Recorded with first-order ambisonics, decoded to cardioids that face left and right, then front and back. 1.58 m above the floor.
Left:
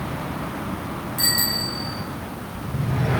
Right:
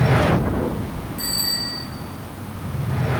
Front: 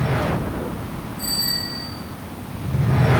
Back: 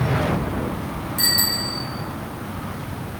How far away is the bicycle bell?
About 8 m.